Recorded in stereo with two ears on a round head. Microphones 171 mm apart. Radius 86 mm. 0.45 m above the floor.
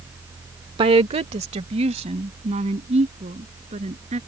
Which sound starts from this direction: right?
A woman speaking, at 0.8 s.